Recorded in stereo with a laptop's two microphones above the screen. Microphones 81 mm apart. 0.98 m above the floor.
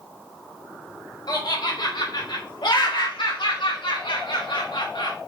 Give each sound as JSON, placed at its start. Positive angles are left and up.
{"t": 1.3, "sound": "laughter", "side_deg": 55, "distance_m": 2.5}